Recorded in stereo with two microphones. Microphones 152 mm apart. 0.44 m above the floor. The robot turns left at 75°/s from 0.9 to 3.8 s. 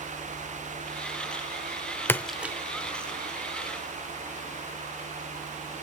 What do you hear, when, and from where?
2.1 s a splash: 15° left (ahead or behind), 0.6 m; by 2.5 s 15° right (ahead or behind), 0.6 m